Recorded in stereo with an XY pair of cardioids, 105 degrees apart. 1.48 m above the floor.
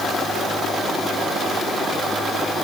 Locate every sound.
Only background noise.